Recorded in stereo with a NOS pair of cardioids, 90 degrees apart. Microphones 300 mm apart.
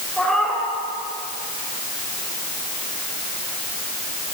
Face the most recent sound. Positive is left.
turn(degrees=0)